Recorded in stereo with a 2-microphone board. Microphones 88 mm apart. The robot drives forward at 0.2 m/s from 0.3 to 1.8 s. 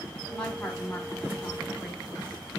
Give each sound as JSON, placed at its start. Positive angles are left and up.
{"t": 0.3, "sound": "a woman speaking", "side_deg": 10, "distance_m": 1.2}